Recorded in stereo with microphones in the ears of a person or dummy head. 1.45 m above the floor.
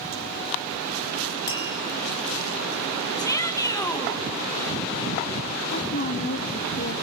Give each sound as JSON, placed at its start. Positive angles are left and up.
{"t": 1.5, "sound": "tapping", "side_deg": 20, "distance_m": 3.0}
{"t": 3.2, "sound": "a shout", "side_deg": 20, "distance_m": 1.8}
{"t": 5.7, "sound": "a woman speaking", "side_deg": 45, "distance_m": 1.1}